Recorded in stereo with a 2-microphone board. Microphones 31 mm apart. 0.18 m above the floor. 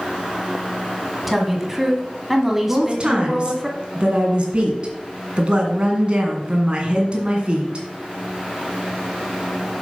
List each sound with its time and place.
1.3 s a woman speaking: 5° right (ahead or behind), 1.4 m
2.7 s a woman speaking: 40° right (ahead or behind), 1.8 m